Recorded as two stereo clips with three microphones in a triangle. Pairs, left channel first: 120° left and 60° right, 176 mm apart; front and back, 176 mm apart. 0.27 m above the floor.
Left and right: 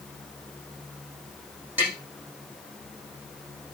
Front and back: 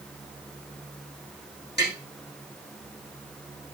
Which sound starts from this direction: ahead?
Tapping, at 1.8 s.